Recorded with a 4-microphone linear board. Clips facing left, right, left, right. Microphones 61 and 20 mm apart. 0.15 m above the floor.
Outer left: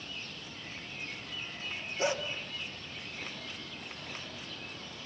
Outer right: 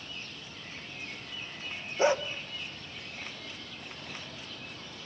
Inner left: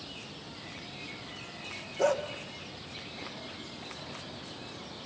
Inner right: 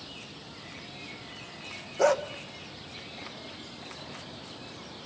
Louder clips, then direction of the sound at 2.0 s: Outer right 6 dB, inner right 4 dB; 30° right (ahead or behind).